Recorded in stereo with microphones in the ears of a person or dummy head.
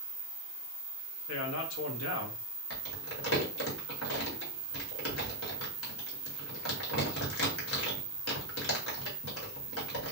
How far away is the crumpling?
About 1.3 m.